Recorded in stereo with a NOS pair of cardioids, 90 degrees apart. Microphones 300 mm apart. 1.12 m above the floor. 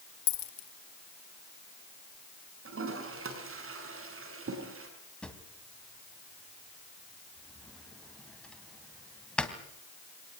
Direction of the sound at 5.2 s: 5° left.